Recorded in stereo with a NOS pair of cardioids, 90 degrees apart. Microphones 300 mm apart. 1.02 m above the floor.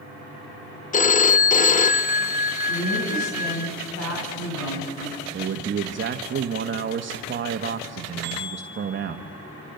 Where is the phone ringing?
25° left, 0.8 m.